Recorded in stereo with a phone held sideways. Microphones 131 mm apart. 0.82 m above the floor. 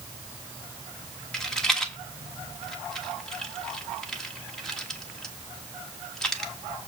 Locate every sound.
1.3 s a rattle: 5° left (ahead or behind), 1.4 m